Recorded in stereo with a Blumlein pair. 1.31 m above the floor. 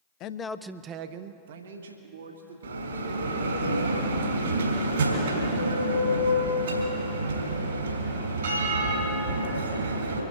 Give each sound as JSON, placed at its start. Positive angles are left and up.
{"t": 0.2, "sound": "a man speaking", "azimuth_deg": 40, "distance_m": 0.7}
{"t": 2.6, "sound": "a bell", "azimuth_deg": -70, "distance_m": 3.0}